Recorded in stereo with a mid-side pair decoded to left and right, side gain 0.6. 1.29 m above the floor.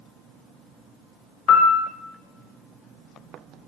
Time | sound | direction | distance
1.5 | a piano | 55° left | 0.6 m